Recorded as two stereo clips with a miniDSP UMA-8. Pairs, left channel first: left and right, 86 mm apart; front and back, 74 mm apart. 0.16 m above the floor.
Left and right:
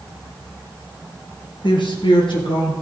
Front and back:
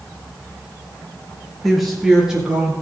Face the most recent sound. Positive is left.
turn(degrees=105)